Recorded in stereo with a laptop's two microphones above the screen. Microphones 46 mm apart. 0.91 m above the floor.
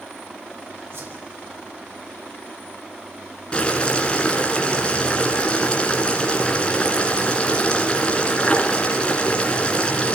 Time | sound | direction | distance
0.9 | a whoosh | 60° right (ahead or behind) | 4.5 m
3.5 | boiling | 25° left (ahead or behind) | 1.9 m